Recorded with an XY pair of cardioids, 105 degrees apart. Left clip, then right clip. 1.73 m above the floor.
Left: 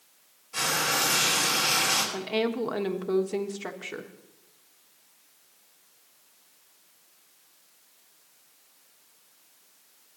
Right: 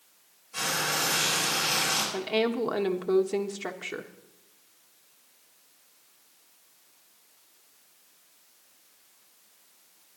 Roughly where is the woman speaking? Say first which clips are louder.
Right 1 dB; ahead.